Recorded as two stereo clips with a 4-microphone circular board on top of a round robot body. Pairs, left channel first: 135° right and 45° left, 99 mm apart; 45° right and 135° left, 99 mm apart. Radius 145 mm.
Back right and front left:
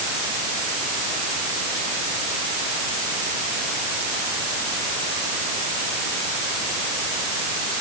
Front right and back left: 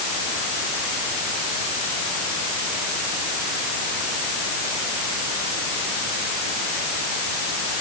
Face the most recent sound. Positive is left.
No sound to turn to.